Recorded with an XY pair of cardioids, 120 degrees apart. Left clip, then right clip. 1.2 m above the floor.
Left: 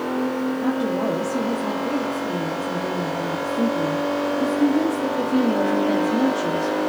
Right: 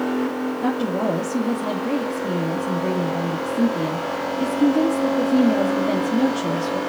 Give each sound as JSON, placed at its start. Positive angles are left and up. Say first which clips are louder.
{"t": 0.6, "sound": "a woman speaking", "louder": "right 2 dB", "azimuth_deg": -30, "distance_m": 2.5}